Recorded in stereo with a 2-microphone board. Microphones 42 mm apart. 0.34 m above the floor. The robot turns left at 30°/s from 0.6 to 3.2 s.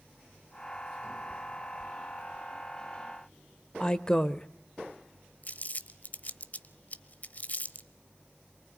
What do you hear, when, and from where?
3.8 s a woman speaking: 20° left (ahead or behind), 0.8 m
5.4 s crumpling: 45° left (ahead or behind), 0.9 m